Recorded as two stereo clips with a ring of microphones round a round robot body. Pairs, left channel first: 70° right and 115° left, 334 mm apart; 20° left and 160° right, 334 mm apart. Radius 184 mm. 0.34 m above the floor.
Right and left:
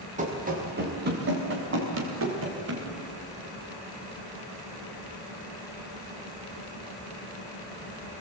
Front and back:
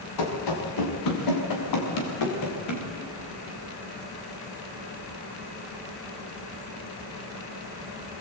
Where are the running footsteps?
45° left, 4.5 m; by 2.9 s 65° left, 5.5 m.